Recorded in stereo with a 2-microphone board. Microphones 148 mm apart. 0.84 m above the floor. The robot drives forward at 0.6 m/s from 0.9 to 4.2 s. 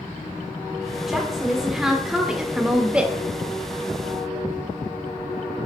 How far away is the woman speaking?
About 2 m.